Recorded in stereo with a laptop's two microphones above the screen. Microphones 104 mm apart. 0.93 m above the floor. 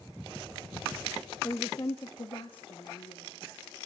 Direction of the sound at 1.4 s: 25° left (ahead or behind).